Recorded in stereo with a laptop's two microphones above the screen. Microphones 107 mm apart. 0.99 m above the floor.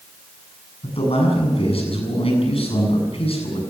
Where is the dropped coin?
No dropped coin in this recording.